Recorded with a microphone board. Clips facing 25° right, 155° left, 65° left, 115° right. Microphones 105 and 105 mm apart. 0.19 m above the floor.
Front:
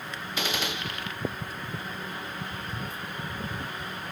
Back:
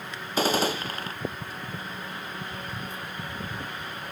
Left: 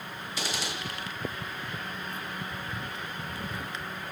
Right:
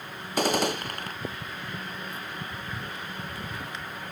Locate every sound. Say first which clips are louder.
0.4 s a gunshot: back 8 dB, right 11 dB; 150° right, 0.9 m